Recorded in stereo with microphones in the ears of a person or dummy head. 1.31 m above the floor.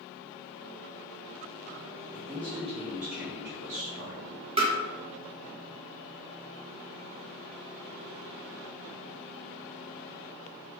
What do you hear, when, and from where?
2.1 s a man speaking: 15° right (ahead or behind), 1.5 m; by 4.4 s 50° right (ahead or behind), 0.9 m
4.6 s tapping: 30° right (ahead or behind), 1.0 m